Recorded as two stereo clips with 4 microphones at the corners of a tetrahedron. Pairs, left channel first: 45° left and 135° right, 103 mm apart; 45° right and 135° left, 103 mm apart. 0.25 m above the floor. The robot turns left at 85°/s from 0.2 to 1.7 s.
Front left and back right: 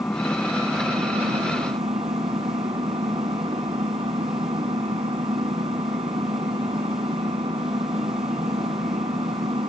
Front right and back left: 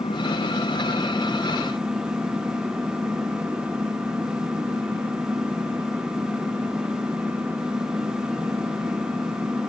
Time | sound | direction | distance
0.0 | an engine running | 20° right | 2 m